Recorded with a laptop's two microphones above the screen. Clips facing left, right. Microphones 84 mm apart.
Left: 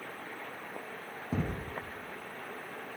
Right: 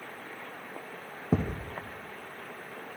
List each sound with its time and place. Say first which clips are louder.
1.3 s a thud: right 5 dB; 40° right (ahead or behind), 0.7 m